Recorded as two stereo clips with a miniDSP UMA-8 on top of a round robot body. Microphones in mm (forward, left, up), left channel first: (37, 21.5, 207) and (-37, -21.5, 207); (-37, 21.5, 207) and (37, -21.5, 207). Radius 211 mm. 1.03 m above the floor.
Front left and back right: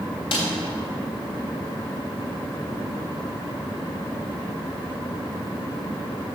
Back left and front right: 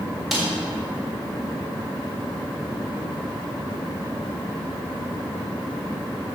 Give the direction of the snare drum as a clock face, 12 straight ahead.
10 o'clock.